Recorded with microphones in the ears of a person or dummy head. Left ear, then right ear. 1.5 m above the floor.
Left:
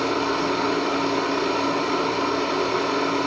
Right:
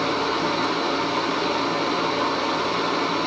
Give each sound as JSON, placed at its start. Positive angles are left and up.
{"t": 0.0, "sound": "a machine running", "side_deg": -25, "distance_m": 1.0}